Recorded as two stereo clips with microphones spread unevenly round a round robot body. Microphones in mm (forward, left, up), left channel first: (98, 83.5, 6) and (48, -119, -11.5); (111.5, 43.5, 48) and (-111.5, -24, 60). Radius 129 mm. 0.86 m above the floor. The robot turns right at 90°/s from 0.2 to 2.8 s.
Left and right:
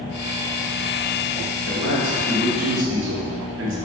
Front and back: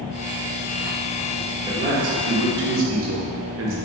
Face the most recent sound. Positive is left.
turn(degrees=-135)